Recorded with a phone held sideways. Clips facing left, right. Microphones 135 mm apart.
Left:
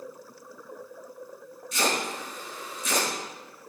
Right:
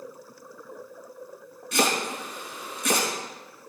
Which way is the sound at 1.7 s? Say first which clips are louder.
Right 3 dB; 80° right.